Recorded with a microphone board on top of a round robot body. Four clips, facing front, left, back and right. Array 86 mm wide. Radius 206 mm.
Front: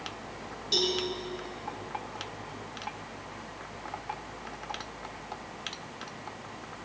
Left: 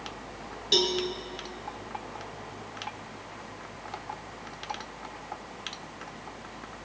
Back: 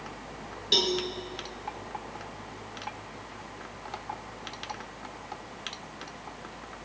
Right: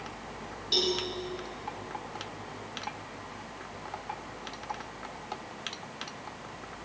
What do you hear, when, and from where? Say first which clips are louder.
0.7 s a cowbell: left 3 dB, back 2 dB; 140° left, 2.5 m